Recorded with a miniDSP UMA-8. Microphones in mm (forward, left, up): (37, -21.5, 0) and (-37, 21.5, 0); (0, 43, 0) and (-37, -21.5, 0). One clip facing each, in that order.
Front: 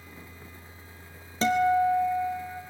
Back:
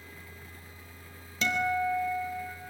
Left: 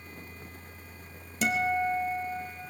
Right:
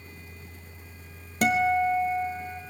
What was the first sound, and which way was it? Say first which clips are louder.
A guitar: front 7 dB, right 5 dB; 85° right.